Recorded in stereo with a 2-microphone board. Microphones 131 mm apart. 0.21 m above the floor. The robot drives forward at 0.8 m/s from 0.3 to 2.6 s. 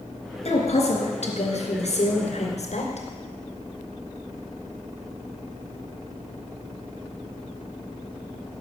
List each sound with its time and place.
0.5 s a woman speaking: 55° left (ahead or behind), 3 m; by 3.1 s 60° left (ahead or behind), 3 m